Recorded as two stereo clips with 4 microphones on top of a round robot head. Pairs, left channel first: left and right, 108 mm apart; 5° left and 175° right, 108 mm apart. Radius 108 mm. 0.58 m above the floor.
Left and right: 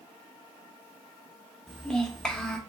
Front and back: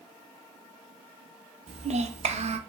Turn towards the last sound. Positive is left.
turn(degrees=175)